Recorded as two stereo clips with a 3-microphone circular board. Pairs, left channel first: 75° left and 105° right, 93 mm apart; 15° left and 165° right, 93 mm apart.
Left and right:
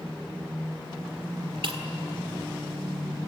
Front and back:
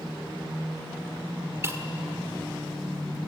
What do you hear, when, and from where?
1.6 s breaking glass: 105° right, 1.8 m